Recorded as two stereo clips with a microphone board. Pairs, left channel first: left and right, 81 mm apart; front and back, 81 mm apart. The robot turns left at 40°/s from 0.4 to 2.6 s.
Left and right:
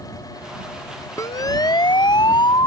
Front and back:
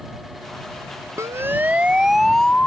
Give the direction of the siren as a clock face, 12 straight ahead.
8 o'clock.